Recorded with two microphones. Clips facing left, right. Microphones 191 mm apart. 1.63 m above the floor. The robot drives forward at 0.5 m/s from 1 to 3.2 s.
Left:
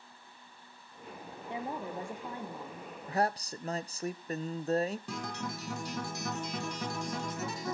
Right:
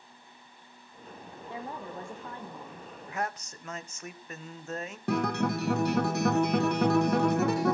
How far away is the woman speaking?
About 1.4 m.